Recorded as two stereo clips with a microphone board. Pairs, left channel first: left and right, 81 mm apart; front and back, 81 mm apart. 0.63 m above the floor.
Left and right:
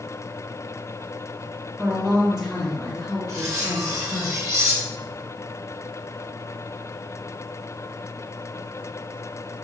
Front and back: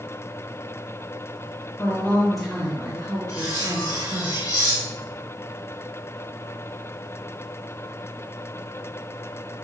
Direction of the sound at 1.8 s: 20° right.